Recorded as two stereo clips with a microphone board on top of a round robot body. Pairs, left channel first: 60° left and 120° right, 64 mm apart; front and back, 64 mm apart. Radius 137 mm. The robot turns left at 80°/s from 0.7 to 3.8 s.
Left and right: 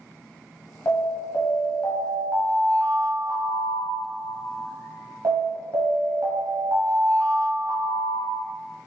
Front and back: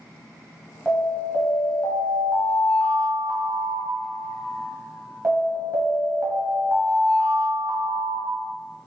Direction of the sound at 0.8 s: 95° left.